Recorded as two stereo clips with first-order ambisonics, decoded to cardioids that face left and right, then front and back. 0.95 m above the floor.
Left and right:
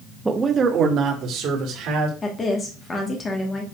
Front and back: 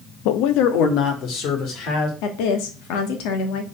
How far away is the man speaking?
About 0.8 m.